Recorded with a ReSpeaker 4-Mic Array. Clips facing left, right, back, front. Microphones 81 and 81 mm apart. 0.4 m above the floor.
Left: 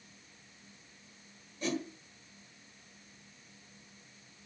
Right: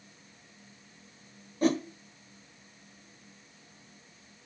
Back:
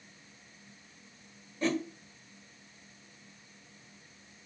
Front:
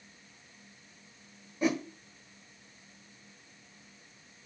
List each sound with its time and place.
1.6 s a whoosh: 75° right, 1.1 m